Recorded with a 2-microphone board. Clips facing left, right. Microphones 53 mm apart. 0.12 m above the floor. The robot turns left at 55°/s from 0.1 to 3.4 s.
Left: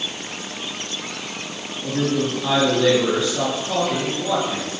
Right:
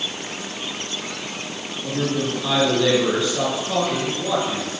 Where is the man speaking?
80° left, 1.7 m; by 4.8 s 5° right, 1.7 m.